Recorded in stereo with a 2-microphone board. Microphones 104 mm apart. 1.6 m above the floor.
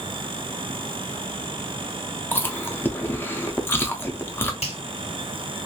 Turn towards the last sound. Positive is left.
turn(degrees=85)